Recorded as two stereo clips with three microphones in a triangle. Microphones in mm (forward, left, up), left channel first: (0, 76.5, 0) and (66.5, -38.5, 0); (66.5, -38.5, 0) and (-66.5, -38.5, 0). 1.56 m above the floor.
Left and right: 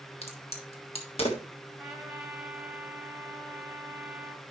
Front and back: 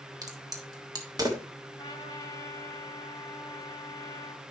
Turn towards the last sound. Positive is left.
turn(degrees=25)